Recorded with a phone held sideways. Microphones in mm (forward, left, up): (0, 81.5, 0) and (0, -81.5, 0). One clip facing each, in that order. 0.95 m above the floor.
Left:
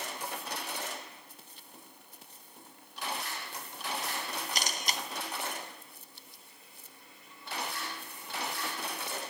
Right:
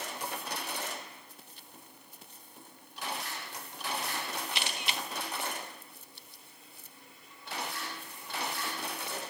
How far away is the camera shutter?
About 0.6 m.